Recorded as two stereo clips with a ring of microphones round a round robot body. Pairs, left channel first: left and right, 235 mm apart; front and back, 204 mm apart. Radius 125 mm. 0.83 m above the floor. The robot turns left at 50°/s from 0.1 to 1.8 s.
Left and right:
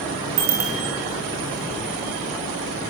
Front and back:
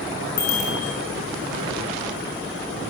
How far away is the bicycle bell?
About 7.5 m.